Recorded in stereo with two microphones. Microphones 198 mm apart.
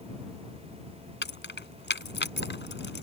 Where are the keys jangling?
70° left (ahead or behind).